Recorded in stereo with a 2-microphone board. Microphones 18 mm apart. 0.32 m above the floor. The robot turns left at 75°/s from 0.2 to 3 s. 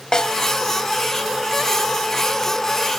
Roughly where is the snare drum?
Left.